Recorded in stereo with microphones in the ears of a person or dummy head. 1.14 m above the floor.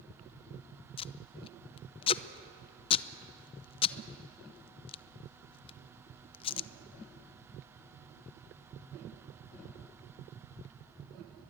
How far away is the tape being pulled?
About 0.7 m.